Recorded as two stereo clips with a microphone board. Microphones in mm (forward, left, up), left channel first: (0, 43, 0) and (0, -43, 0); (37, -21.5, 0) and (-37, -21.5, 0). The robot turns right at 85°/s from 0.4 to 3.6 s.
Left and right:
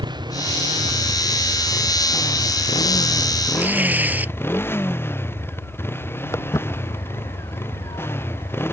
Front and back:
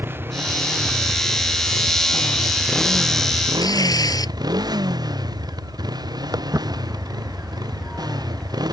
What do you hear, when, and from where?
0.0 s a motorcycle: 120° right; by 8.7 s 150° left
3.6 s tearing paper: 25° right; by 4.3 s 20° right
6.3 s footsteps: 145° left; by 8.6 s 80° left